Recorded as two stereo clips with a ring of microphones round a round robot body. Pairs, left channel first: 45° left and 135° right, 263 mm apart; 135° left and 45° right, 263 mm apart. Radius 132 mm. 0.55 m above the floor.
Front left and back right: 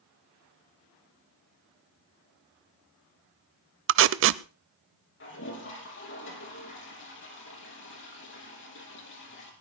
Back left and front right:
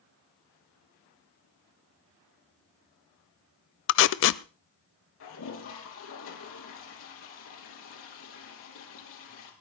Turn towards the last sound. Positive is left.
turn(degrees=95)